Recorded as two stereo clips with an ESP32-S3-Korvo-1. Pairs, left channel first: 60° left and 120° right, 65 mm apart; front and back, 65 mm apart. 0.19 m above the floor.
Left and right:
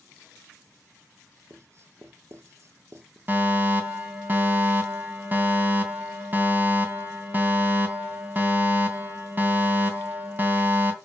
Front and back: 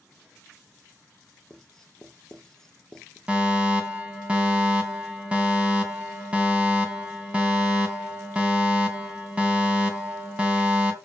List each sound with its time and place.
1.5 s writing: 85° right, 2 m
3.3 s a fire alarm: 130° right, 3 m